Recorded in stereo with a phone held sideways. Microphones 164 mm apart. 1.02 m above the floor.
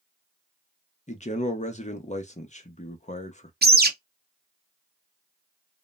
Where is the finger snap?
No finger snap in this recording.